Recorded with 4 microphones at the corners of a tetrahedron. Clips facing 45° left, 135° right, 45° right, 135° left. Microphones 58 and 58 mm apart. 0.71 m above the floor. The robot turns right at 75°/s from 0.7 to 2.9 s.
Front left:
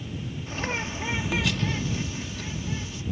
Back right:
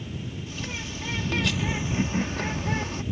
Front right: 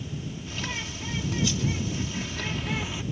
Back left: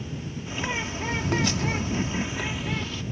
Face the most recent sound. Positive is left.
turn(degrees=-120)